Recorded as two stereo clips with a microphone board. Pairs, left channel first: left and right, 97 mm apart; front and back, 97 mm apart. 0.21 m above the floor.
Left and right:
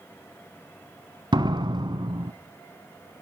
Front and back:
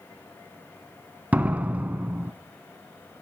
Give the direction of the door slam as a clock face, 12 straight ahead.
4 o'clock.